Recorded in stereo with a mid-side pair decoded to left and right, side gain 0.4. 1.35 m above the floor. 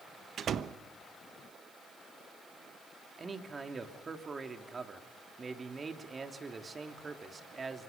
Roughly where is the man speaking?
Ahead right.